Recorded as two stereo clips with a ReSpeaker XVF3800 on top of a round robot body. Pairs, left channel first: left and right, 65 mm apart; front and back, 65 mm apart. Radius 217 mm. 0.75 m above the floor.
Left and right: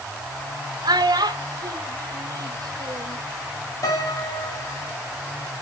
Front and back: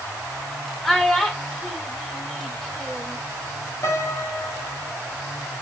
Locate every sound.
0.8 s a child speaking: 80° right, 1.1 m
3.8 s a piano: 50° left, 3.5 m